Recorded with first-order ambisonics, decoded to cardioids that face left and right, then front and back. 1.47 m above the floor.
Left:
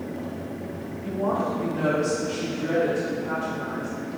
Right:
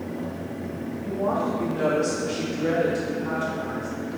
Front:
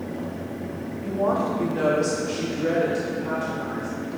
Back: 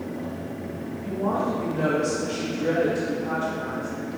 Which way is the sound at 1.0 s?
15° left.